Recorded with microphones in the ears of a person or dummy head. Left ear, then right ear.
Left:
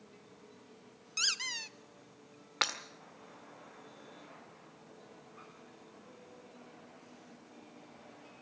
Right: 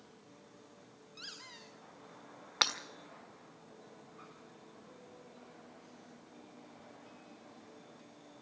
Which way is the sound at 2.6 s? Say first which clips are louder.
Right 2 dB; 15° right (ahead or behind).